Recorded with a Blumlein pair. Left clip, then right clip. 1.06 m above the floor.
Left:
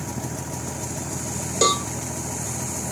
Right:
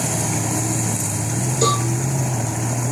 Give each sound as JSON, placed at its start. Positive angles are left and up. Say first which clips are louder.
{"t": 1.6, "sound": "a cowbell", "louder": "right 1 dB", "azimuth_deg": 30, "distance_m": 1.4}